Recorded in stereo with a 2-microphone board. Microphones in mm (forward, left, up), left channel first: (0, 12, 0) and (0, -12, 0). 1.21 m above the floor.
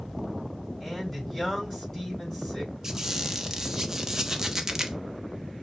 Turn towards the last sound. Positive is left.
turn(degrees=-20)  # may be behind; listen again after turning